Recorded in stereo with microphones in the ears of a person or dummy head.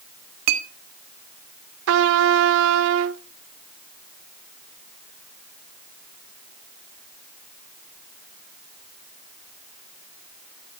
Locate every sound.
0.5 s a clink: 55° right (ahead or behind), 1.1 m
1.9 s a trumpet: 70° right (ahead or behind), 0.7 m